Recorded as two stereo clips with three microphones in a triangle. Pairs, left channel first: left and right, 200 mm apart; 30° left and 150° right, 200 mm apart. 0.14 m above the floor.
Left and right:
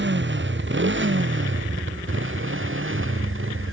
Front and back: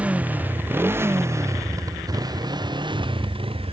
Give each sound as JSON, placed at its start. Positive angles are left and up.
{"t": 0.0, "sound": "a motorcycle", "azimuth_deg": -65}